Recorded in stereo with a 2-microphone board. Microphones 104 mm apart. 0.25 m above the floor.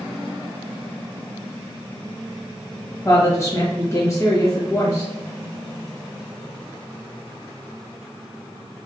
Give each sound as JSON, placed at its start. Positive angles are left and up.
{"t": 3.0, "sound": "a woman speaking", "side_deg": 30, "distance_m": 1.0}